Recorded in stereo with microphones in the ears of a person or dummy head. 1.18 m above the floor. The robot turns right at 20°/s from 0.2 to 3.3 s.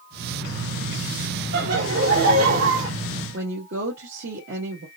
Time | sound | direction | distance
1.5 | laughter | 75° right (ahead or behind) | 2 m
3.3 | a woman speaking | 75° right (ahead or behind) | 2 m